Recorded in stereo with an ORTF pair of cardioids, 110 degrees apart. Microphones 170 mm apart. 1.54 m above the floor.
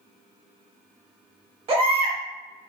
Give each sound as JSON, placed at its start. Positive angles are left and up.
{"t": 1.7, "sound": "a baby crying", "azimuth_deg": -35, "distance_m": 1.3}